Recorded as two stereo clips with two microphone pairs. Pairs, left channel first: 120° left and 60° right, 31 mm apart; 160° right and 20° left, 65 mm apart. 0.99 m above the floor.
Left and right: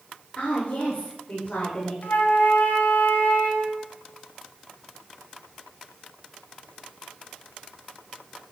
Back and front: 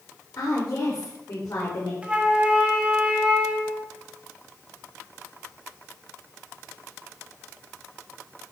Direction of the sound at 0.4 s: 175° left.